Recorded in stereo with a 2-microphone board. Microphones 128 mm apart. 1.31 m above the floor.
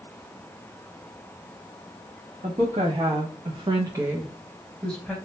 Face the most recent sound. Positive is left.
turn(degrees=10)  # may be behind; listen again after turning